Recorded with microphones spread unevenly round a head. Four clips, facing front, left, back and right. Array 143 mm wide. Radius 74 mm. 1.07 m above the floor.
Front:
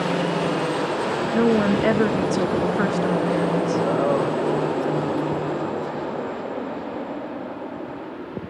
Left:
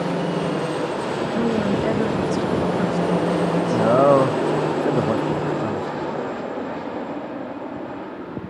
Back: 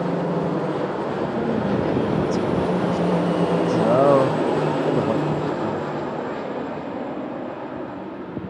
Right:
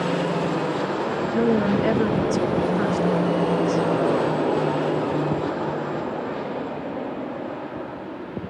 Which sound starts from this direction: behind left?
A man speaking, at 3.7 s.